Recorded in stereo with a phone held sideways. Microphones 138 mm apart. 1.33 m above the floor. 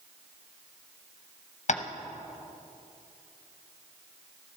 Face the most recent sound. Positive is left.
turn(degrees=55)  # may be behind; listen again after turning